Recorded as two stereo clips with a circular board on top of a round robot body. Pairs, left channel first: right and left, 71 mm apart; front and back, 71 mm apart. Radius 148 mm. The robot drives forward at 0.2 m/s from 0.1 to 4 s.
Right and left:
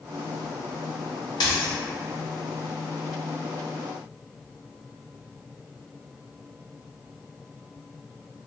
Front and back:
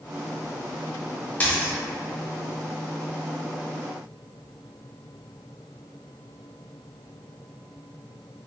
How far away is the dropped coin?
About 0.7 m.